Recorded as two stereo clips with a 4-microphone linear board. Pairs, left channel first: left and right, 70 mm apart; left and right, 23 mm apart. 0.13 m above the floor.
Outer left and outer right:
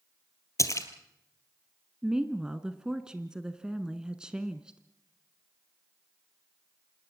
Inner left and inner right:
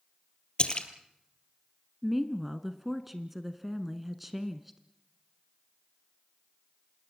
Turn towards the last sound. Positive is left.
turn(degrees=-10)  # may be behind; listen again after turning